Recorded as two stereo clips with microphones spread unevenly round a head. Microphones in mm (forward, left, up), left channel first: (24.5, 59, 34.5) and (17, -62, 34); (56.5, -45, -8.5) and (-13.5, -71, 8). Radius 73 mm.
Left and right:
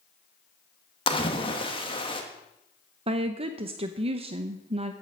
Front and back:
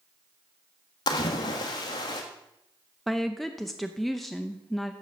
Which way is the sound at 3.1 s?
60° right.